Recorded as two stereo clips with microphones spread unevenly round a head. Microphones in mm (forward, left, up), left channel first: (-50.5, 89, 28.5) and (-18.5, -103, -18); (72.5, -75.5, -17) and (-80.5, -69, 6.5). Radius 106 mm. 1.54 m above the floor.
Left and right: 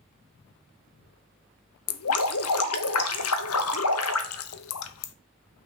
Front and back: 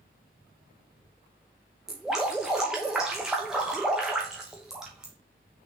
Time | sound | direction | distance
1.9 | dripping | 90° left | 0.6 m